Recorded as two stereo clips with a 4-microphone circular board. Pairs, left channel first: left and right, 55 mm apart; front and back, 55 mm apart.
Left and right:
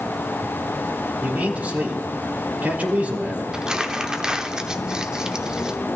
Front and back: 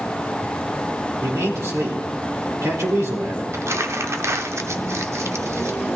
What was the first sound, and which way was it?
A man speaking, 155° right.